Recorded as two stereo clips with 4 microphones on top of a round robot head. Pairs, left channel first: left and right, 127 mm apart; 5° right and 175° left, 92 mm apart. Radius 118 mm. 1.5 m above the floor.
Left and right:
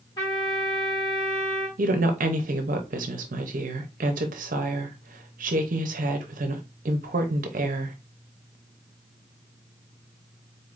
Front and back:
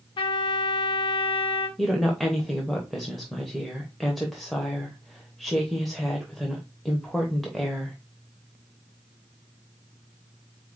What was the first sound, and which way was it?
A trumpet, 20° left.